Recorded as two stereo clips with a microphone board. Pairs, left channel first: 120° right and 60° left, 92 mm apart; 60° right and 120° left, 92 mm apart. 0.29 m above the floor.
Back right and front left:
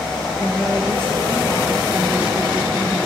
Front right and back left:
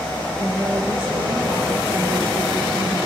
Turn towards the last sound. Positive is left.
turn(degrees=135)